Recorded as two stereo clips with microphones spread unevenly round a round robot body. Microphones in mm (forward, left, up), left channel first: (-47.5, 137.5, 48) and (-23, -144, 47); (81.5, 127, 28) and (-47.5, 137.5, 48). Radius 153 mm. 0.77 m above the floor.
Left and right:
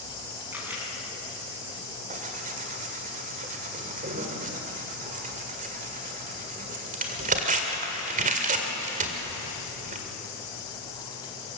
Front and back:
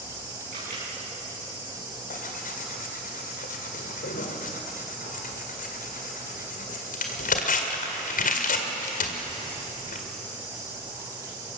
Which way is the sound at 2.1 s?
20° right.